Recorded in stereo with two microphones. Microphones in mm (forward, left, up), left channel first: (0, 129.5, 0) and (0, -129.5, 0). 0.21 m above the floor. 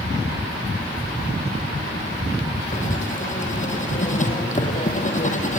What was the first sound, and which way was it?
Writing, 30° left (ahead or behind).